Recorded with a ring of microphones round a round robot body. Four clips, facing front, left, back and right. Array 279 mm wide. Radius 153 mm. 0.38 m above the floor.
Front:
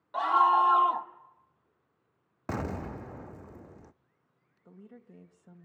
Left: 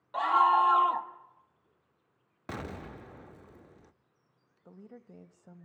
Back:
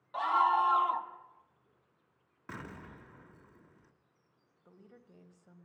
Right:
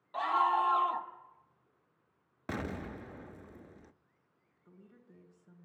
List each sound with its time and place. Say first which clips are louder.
0.1 s a scream: left 5 dB, front 4 dB; 40° left, 1.5 m
2.5 s an explosion: right 2 dB, front 12 dB; 15° right, 0.5 m
4.7 s a woman speaking: left 9 dB, front 6 dB; 75° left, 2 m